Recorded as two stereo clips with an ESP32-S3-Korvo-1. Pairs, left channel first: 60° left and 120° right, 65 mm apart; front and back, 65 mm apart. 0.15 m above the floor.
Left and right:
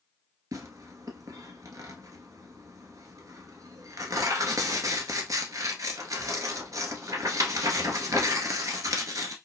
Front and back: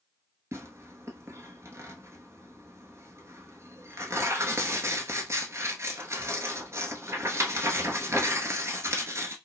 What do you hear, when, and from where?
0.5 s tearing paper: 140° right, 0.8 m